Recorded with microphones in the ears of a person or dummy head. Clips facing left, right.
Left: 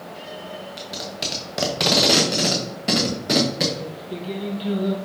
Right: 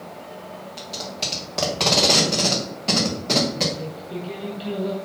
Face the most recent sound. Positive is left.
turn(degrees=10)  # may be behind; listen again after turning